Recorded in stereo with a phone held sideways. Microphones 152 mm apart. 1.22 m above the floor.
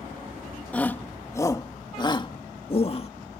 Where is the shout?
10° left (ahead or behind); by 3.1 s 40° left (ahead or behind).